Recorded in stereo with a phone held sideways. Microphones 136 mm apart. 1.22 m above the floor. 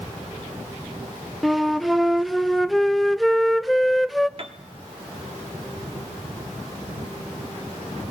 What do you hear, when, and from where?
1.4 s a flute: centre (ahead or behind), 0.5 m
4.4 s a piano: 45° right (ahead or behind), 1.3 m